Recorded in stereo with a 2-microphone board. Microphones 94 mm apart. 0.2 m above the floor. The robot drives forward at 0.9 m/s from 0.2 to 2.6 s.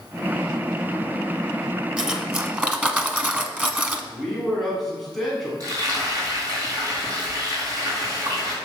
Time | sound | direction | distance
2.0 | cutlery clinking | 10° right (ahead or behind) | 1.4 m
4.1 | a man speaking | centre (ahead or behind) | 1.7 m
5.6 | frying | 40° right (ahead or behind) | 3.5 m